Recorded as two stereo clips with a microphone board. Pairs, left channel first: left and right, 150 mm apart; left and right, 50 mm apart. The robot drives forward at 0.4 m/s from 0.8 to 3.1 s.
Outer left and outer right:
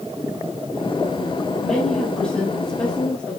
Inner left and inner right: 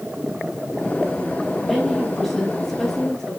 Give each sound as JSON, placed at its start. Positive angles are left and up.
{"t": 1.6, "sound": "a woman speaking", "side_deg": 5, "distance_m": 3.5}